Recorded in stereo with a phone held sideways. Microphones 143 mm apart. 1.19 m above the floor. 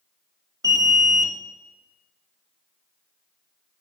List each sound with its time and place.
0.6 s an alarm: 25° right (ahead or behind), 0.7 m